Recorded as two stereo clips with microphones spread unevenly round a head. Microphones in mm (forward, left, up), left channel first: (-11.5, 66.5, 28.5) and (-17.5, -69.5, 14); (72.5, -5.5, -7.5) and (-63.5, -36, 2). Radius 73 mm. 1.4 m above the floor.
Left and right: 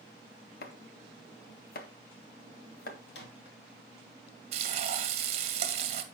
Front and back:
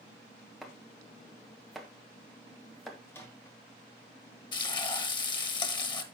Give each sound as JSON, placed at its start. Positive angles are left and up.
{"t": 0.6, "sound": "chopping", "azimuth_deg": 105, "distance_m": 1.6}
{"t": 3.1, "sound": "a microwave", "azimuth_deg": 90, "distance_m": 2.5}
{"t": 4.5, "sound": "frying", "azimuth_deg": -45, "distance_m": 1.5}